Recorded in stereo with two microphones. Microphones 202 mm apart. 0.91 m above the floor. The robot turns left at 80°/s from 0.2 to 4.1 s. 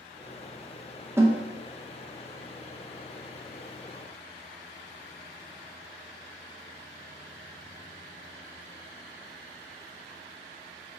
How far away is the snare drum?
About 0.6 m.